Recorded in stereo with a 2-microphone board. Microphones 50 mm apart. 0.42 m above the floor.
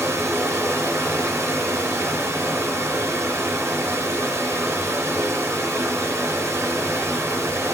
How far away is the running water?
About 3.5 m.